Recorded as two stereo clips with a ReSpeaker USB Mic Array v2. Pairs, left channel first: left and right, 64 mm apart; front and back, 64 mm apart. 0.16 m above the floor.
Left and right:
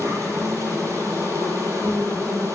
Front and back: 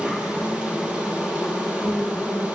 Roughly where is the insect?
Right.